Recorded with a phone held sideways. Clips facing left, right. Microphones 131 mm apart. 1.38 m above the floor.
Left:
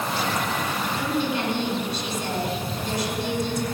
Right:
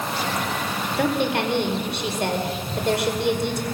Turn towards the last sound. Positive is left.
turn(degrees=-70)  # may be behind; listen again after turning